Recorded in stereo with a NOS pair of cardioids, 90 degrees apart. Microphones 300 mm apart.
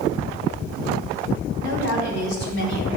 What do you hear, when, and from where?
1.6 s a woman speaking: 40° left, 3 m